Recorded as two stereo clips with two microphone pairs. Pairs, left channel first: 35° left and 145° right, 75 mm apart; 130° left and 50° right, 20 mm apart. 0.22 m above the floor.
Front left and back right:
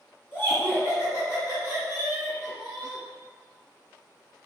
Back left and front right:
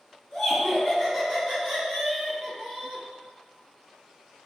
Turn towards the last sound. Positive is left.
turn(degrees=25)